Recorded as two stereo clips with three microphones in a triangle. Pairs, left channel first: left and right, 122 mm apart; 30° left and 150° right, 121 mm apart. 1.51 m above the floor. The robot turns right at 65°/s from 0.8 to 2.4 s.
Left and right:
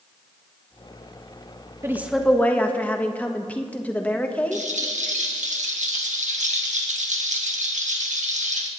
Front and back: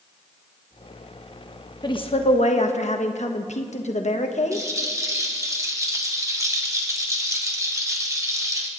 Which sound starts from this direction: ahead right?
A woman speaking, at 1.8 s.